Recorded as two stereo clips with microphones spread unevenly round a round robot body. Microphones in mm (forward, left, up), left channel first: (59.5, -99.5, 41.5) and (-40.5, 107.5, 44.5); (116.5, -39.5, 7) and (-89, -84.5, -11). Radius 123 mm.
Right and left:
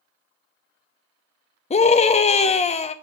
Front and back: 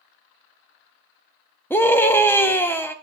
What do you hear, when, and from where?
1.7 s a scream: 65° right, 0.6 m